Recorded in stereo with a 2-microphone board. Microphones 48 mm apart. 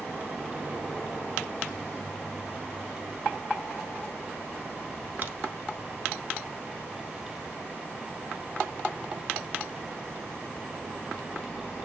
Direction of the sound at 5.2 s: 40° right (ahead or behind).